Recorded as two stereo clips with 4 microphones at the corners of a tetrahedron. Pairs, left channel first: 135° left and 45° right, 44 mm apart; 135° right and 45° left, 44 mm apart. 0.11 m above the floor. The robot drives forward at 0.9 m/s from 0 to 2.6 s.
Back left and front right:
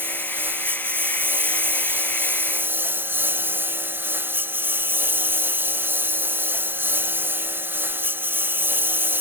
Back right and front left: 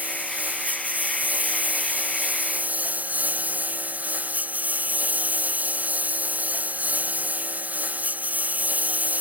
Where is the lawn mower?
5° right.